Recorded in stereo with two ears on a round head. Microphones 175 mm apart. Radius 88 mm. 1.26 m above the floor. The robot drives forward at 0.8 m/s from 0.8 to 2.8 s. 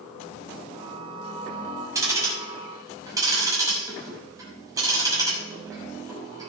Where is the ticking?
15° right (ahead or behind), 6.5 m; by 6.5 s 20° right (ahead or behind), 6 m.